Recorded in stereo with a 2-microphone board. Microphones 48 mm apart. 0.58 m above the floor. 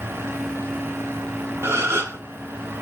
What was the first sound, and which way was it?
A gasp, 65° right (ahead or behind).